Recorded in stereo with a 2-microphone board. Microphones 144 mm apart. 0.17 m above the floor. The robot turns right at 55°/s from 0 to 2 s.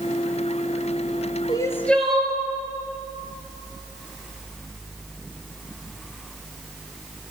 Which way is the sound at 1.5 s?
30° left (ahead or behind).